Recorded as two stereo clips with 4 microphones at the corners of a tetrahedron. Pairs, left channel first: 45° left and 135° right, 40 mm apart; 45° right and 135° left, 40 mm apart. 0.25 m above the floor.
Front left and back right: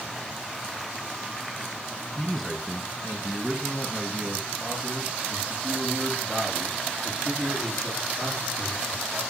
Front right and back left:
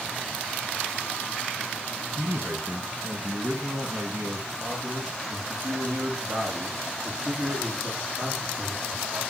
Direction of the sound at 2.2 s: 130° left.